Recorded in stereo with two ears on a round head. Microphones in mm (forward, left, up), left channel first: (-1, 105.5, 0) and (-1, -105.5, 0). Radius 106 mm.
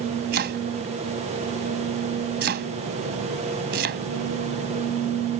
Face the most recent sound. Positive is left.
turn(degrees=-45)  # may be behind; listen again after turning